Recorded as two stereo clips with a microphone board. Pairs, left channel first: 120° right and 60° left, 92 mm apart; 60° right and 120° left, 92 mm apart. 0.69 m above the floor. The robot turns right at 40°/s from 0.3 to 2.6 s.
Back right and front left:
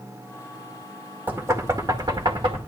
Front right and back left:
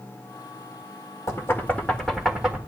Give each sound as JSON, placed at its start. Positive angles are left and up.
{"t": 1.3, "sound": "knocking", "azimuth_deg": -10, "distance_m": 1.9}